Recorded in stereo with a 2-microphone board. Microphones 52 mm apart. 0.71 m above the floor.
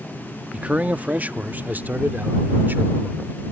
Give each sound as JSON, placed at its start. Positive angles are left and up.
{"t": 0.5, "sound": "a man speaking", "side_deg": -25}